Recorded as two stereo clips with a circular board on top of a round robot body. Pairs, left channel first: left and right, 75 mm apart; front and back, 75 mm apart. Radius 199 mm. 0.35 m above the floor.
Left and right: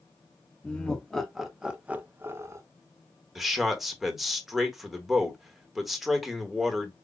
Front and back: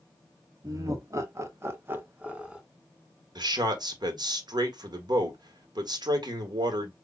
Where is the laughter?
160° left, 1.5 m; by 2.6 s 110° right, 1.3 m.